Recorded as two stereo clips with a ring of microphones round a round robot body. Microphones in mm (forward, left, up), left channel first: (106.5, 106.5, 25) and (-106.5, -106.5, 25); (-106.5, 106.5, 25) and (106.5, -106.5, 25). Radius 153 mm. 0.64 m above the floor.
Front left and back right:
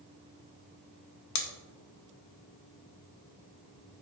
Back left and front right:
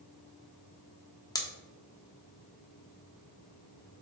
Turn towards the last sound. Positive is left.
turn(degrees=60)